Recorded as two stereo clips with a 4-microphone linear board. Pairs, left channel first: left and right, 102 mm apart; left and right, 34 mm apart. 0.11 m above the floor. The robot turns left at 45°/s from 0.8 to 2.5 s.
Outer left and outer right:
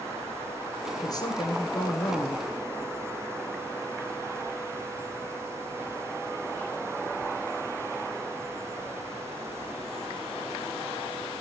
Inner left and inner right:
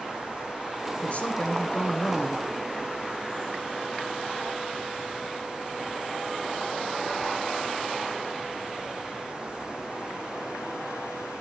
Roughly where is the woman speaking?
Behind left.